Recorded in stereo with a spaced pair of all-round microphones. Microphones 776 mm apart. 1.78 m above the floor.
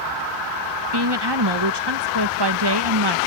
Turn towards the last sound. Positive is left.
turn(degrees=-30)  # may be behind; listen again after turning